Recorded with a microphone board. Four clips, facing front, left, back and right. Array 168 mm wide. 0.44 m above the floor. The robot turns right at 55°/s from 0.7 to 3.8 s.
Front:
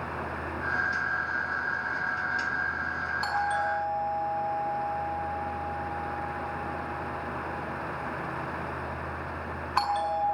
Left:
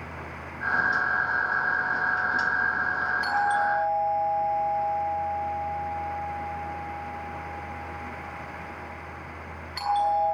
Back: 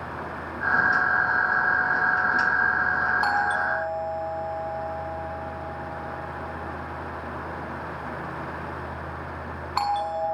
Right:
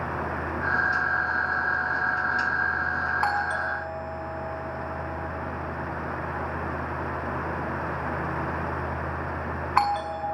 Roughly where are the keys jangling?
I don't hear keys jangling.